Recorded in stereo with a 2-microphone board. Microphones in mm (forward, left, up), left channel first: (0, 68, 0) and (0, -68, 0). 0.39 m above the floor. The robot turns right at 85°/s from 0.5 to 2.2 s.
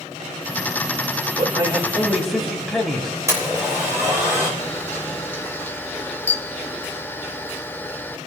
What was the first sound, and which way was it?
A man speaking, 70° right.